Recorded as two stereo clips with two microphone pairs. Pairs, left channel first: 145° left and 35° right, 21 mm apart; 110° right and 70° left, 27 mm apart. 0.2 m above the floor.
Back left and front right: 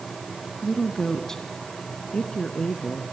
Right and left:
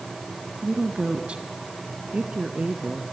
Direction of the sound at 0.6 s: 70° left.